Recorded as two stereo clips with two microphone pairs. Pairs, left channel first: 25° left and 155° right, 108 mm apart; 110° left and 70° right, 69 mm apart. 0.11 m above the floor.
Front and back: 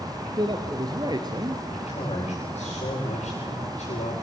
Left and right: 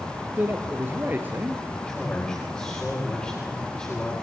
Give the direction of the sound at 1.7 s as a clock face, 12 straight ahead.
11 o'clock.